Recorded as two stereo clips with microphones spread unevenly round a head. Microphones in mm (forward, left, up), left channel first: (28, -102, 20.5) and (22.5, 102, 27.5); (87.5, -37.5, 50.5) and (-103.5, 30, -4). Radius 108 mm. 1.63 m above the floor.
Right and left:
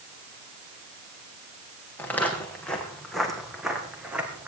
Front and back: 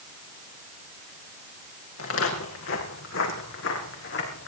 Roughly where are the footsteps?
Ahead.